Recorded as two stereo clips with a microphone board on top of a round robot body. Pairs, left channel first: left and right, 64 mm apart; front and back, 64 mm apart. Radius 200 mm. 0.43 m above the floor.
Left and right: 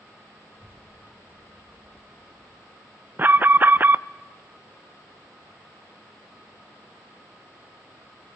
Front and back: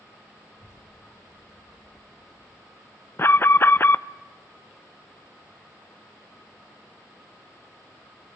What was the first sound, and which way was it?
A child speaking, 30° left.